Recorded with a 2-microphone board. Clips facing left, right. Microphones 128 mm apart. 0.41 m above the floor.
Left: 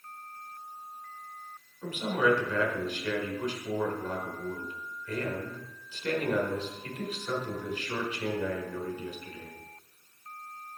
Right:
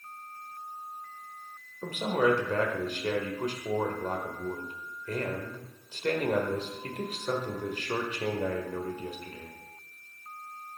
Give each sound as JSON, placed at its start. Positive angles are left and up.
{"t": 1.8, "sound": "a man speaking", "side_deg": -40, "distance_m": 1.2}